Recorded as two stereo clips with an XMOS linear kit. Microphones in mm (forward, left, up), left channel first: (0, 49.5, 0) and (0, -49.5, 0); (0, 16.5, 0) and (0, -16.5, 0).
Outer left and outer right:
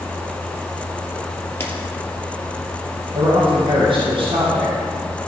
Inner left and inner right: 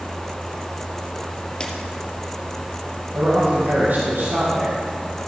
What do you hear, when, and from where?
1.6 s a camera shutter: 25° left (ahead or behind), 2 m
3.1 s a man speaking: 60° right (ahead or behind), 3.5 m